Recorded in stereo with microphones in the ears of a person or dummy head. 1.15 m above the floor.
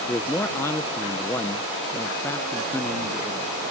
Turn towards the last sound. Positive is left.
turn(degrees=5)  # may be behind; listen again after turning